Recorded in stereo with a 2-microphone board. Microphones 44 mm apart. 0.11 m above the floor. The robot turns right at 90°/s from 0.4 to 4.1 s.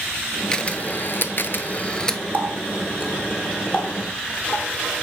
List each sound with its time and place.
0.5 s a camera shutter: 15° left (ahead or behind), 0.7 m; by 2.2 s 5° left (ahead or behind), 0.7 m
2.3 s a running tap: 45° right (ahead or behind), 1.4 m; by 4.7 s 40° left (ahead or behind), 1.4 m